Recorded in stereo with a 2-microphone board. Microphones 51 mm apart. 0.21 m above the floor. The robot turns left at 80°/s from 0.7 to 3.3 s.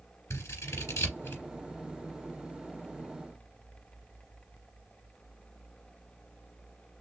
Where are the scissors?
70° left (ahead or behind), 3.5 m; by 1.4 s 40° left (ahead or behind), 3.5 m.